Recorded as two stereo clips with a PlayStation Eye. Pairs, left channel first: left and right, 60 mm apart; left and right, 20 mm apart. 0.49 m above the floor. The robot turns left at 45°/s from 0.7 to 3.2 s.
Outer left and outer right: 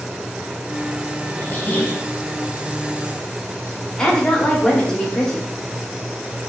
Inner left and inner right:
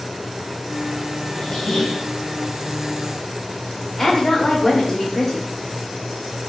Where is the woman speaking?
10° left (ahead or behind), 1.1 m.